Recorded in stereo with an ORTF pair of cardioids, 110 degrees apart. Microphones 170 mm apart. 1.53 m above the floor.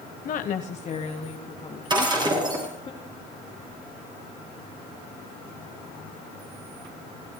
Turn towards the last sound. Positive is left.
turn(degrees=-25)